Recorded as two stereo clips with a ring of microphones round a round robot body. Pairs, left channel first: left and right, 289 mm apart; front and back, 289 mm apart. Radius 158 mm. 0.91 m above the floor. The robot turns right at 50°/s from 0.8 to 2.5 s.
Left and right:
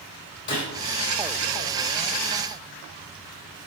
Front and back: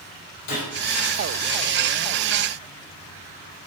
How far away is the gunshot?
About 4 m.